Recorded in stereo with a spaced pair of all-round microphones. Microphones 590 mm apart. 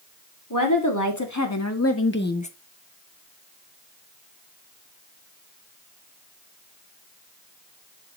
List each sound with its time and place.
0.5 s a woman speaking: 30° left (ahead or behind), 2.5 m; by 2.5 s 10° left (ahead or behind), 0.8 m